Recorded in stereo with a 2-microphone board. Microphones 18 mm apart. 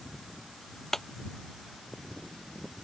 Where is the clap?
20° left (ahead or behind).